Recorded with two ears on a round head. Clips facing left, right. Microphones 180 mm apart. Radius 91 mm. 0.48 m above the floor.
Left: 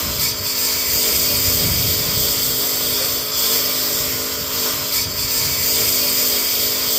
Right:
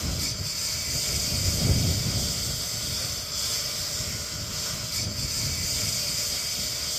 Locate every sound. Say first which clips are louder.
0.0 s a lawn mower: left 6 dB; 75° left (ahead or behind)